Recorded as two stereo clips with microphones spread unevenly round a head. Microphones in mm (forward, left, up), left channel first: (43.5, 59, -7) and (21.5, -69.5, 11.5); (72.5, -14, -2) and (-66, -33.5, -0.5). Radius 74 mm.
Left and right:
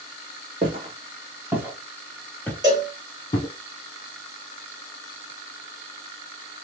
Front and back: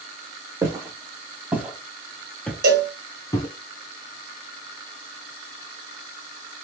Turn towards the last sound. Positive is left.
turn(degrees=-165)